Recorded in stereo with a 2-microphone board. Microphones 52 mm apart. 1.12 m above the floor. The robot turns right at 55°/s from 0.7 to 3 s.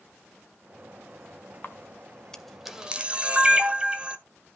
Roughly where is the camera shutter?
Left.